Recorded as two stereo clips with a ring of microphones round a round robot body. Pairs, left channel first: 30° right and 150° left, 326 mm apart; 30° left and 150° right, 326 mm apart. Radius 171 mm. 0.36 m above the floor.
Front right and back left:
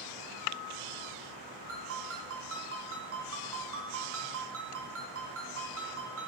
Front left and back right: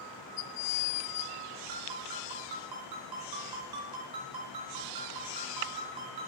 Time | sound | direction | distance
1.7 | a ringtone | 160° right | 2.5 m